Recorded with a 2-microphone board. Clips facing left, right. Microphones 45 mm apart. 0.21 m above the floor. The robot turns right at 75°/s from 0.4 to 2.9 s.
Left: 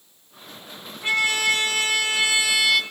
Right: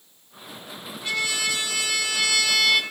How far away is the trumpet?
About 2.5 m.